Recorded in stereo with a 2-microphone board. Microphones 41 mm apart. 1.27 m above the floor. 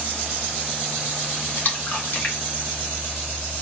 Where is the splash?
40° left (ahead or behind), 1.1 m.